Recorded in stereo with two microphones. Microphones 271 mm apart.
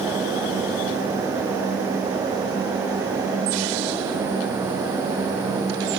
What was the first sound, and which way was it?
Only background noise.